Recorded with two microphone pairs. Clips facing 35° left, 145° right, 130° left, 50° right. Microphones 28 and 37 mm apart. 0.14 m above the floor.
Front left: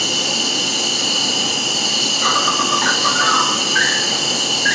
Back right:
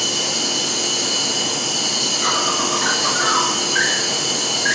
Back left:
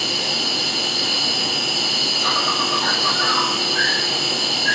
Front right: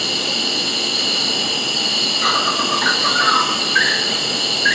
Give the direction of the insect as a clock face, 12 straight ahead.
1 o'clock.